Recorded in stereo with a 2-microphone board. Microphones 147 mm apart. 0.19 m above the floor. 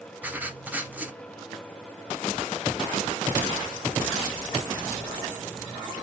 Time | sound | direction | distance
0.2 | writing | 10° right (ahead or behind) | 0.7 m